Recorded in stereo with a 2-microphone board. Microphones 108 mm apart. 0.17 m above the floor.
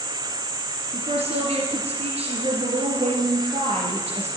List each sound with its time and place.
0.9 s a woman speaking: 70° right (ahead or behind), 3 m